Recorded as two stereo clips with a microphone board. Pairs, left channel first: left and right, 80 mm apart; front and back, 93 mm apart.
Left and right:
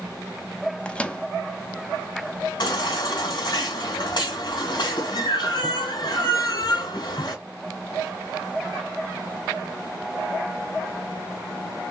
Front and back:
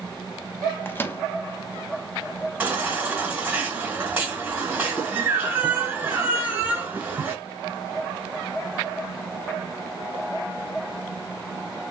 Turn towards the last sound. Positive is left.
turn(degrees=110)